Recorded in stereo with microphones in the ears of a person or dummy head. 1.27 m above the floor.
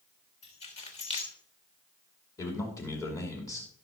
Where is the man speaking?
20° left (ahead or behind), 2.5 m.